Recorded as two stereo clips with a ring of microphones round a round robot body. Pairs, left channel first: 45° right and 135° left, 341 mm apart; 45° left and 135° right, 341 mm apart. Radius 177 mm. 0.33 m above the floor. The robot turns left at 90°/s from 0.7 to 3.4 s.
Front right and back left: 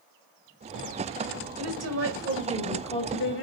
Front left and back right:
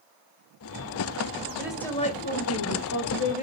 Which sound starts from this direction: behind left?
A woman speaking, at 1.6 s.